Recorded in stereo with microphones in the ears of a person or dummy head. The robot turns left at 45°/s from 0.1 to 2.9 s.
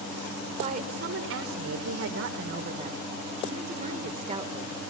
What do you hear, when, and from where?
0.6 s a woman speaking: 35° right, 4 m; by 4.8 s 140° right, 4 m